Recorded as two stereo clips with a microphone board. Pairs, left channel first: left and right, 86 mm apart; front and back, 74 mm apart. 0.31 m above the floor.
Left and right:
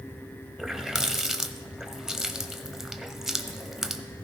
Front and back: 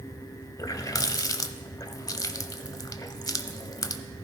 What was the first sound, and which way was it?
A running tap, 5° right.